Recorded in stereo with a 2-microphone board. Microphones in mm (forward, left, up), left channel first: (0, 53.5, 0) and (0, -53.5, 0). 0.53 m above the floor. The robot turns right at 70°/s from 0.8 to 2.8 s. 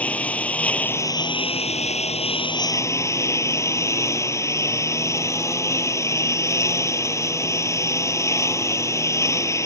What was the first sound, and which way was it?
A lawn mower, 15° left.